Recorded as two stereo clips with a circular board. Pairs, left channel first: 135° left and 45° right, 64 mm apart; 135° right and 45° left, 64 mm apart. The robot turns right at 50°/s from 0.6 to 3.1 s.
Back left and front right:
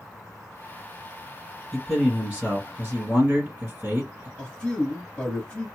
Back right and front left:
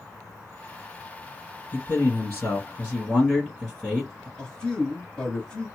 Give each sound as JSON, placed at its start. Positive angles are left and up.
{"t": 1.7, "sound": "a man speaking", "azimuth_deg": -135, "distance_m": 1.8}
{"t": 4.4, "sound": "a man speaking", "azimuth_deg": 170, "distance_m": 1.6}